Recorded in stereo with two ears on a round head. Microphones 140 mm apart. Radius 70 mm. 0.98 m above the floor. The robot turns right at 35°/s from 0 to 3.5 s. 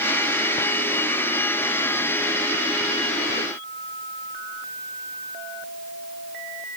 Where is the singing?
I don't hear singing.